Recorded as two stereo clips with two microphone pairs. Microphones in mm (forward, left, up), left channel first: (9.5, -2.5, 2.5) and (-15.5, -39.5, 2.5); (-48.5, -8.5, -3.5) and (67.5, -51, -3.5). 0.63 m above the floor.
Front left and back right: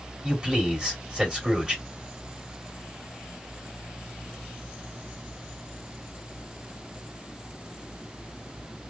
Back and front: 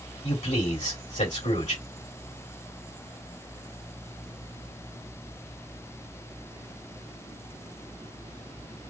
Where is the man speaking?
165° left, 2.5 m.